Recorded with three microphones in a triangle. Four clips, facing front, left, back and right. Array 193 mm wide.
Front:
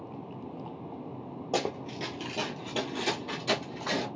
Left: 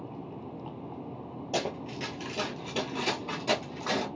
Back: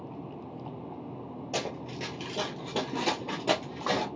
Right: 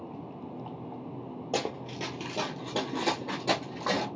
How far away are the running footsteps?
About 0.7 m.